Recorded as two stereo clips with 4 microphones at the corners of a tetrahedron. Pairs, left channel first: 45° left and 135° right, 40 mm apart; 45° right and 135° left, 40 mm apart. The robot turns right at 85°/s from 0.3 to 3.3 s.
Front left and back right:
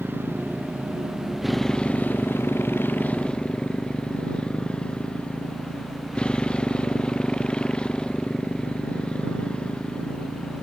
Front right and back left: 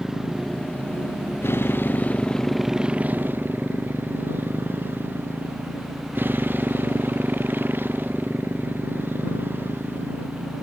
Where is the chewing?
I don't hear chewing.